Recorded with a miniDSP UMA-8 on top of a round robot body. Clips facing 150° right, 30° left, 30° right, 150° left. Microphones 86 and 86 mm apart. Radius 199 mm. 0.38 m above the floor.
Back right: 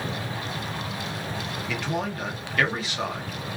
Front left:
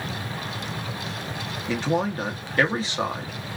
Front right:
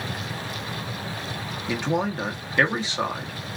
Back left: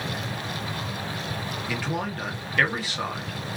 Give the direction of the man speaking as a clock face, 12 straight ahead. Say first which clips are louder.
Front left 6 dB, front right 6 dB; 12 o'clock.